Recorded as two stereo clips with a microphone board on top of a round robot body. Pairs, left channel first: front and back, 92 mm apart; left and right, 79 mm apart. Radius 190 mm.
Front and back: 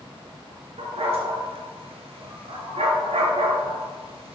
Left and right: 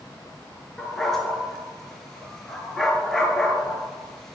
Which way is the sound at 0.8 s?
175° left.